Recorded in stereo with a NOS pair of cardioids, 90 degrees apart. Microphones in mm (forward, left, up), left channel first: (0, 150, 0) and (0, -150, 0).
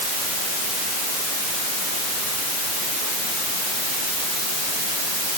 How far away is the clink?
I don't hear a clink.